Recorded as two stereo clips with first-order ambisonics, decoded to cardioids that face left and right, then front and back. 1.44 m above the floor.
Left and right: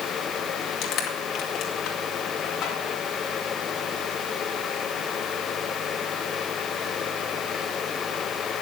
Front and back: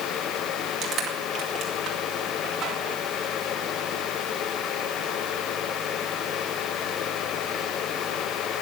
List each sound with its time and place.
0.8 s crushing: 125° left, 2 m